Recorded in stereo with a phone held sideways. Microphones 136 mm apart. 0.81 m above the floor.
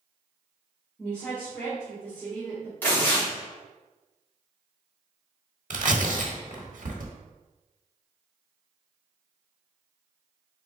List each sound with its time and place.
1.0 s a woman speaking: 5° left (ahead or behind), 1.6 m
2.8 s tearing paper: 15° left (ahead or behind), 2 m
5.7 s tearing paper: 70° right (ahead or behind), 1.0 m